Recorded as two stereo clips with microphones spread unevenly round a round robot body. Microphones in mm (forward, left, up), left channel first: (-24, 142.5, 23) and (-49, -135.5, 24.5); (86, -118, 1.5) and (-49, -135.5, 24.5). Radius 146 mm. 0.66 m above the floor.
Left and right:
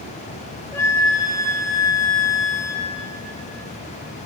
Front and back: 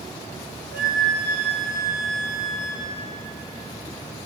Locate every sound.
0.7 s a flute: 165° left, 0.9 m